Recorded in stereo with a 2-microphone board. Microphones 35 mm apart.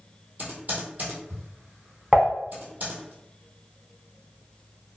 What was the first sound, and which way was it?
Typing on a keyboard, 50° right (ahead or behind).